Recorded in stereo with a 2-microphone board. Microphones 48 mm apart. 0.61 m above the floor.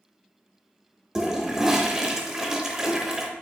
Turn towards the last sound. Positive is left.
turn(degrees=-10)  # may be behind; listen again after turning